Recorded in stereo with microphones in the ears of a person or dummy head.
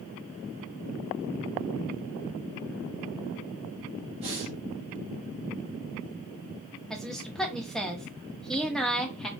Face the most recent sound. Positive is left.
turn(degrees=0)  # may be behind; listen again after turning